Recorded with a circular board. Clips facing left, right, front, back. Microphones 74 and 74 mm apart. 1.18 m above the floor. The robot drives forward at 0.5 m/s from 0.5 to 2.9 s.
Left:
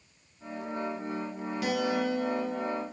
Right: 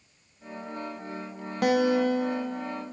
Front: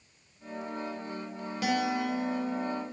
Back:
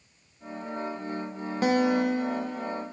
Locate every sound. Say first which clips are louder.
1.6 s a guitar: right 7 dB, back 6 dB; 130° right, 0.6 m; by 2.8 s 155° right, 1.1 m